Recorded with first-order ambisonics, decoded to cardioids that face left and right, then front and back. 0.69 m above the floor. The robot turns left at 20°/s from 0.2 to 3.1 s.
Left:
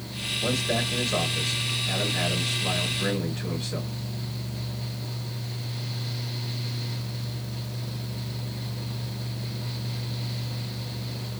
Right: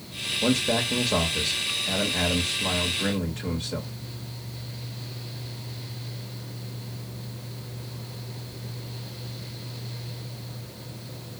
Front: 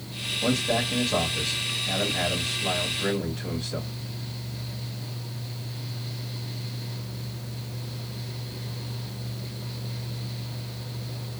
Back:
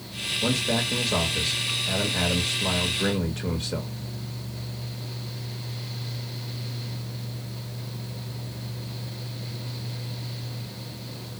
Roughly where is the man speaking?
Right.